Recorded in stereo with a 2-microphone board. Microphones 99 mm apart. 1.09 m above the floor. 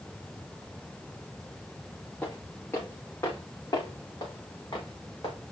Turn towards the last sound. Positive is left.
turn(degrees=50)  # may be behind; listen again after turning